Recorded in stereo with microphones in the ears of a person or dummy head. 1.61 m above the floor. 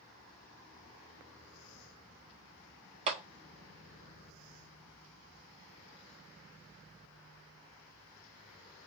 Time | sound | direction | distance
3.1 | a clap | 30° right (ahead or behind) | 0.5 m